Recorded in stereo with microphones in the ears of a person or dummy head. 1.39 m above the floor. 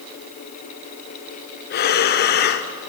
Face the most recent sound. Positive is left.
turn(degrees=45)  # may be behind; listen again after turning